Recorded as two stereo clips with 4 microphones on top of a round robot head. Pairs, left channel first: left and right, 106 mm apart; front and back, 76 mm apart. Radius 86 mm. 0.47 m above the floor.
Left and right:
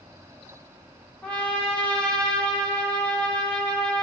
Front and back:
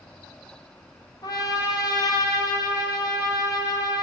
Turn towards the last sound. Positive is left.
turn(degrees=10)